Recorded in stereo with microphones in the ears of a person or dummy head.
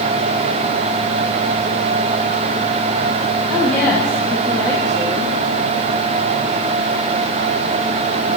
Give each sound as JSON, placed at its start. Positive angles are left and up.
{"t": 3.5, "sound": "a woman speaking", "side_deg": 5, "distance_m": 1.6}